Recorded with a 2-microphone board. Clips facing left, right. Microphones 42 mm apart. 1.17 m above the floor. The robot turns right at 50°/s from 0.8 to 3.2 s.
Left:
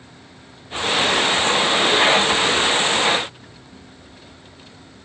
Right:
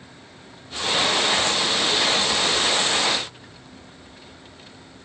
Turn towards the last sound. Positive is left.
No sound to turn to.